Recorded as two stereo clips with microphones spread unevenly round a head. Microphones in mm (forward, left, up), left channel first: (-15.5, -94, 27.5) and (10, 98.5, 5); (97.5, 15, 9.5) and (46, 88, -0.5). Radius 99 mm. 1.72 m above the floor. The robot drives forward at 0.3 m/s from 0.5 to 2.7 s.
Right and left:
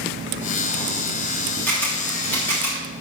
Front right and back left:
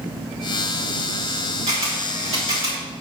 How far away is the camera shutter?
About 3.5 m.